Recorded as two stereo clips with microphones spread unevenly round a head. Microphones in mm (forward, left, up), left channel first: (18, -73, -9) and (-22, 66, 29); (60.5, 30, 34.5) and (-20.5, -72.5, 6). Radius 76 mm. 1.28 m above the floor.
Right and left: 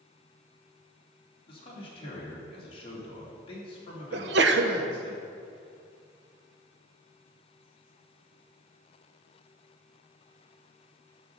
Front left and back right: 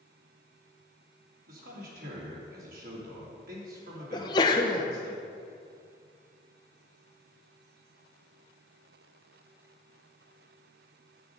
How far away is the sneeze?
About 1.0 m.